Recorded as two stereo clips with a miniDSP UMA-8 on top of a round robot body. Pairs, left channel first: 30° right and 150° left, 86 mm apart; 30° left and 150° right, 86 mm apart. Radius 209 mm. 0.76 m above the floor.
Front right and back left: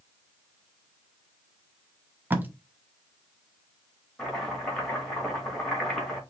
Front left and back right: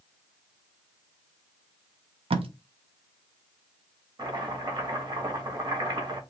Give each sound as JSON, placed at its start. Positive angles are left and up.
{"t": 2.3, "sound": "tape being pulled", "azimuth_deg": -140, "distance_m": 0.6}
{"t": 4.2, "sound": "chopping", "azimuth_deg": -115, "distance_m": 2.5}